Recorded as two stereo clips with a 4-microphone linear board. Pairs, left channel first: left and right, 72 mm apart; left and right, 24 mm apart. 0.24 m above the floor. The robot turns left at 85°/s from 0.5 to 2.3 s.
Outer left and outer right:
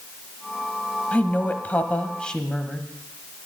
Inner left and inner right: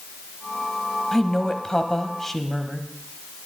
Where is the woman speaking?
20° left (ahead or behind), 1.0 m; by 2.9 s 10° left (ahead or behind), 1.0 m.